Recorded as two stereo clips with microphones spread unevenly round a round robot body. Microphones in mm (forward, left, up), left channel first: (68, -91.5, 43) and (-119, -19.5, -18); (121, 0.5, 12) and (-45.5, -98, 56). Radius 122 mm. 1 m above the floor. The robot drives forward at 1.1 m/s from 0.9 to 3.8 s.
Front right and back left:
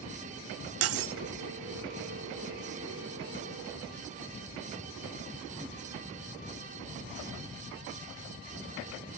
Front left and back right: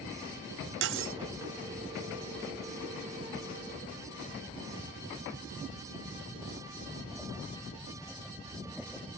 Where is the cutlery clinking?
170° left.